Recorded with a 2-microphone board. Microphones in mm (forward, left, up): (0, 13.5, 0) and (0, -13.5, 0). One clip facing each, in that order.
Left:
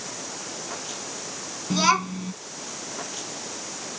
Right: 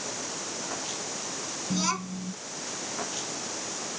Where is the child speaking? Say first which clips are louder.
Left 9 dB; 40° left (ahead or behind).